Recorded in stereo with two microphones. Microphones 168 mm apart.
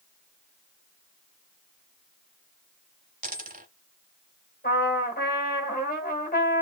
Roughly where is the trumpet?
Left.